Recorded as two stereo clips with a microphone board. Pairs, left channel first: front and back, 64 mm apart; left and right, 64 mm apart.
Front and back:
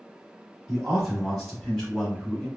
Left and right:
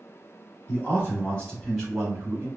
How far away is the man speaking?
About 1.5 m.